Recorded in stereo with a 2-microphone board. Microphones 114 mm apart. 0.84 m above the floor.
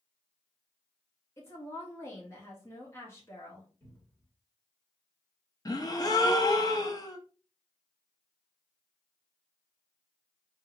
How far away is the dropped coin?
I don't hear a dropped coin.